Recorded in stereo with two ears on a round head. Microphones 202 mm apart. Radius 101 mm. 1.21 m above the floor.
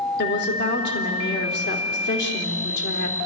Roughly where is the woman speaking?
Left.